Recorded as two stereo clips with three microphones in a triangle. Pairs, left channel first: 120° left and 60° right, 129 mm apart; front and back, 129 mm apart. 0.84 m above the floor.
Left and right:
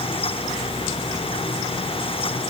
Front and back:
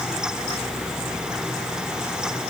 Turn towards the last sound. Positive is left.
No sound to turn to.